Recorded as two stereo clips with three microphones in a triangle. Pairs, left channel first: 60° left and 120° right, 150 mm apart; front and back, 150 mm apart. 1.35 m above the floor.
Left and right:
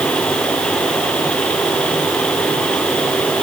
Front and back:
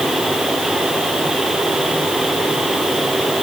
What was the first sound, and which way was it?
Only background noise.